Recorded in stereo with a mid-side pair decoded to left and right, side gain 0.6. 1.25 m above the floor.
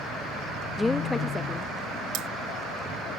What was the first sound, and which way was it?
A woman speaking, 10° left.